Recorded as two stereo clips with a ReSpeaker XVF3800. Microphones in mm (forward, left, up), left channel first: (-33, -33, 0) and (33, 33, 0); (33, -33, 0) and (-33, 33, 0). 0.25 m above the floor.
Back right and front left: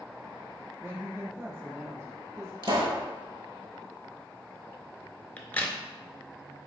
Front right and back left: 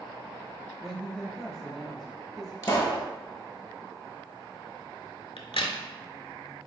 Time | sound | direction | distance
0.8 | a woman speaking | 45° left | 1.1 m
2.6 | a pop | 15° left | 0.9 m
5.4 | a crack | 65° right | 0.5 m